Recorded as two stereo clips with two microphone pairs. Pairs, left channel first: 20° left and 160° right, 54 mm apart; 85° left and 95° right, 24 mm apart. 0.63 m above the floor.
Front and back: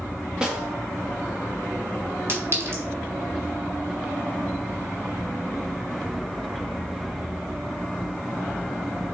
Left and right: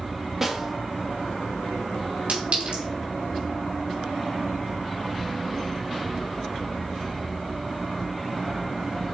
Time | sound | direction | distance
0.4 | a snare drum | 120° right | 1.2 m
2.3 | a clink | 120° right | 3 m